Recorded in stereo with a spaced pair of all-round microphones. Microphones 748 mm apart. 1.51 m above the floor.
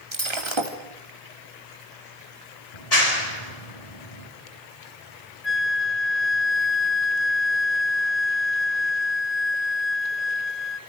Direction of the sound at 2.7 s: 55° left (ahead or behind).